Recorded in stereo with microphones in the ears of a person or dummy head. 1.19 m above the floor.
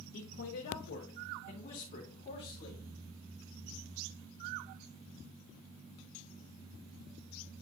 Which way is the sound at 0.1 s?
75° left (ahead or behind).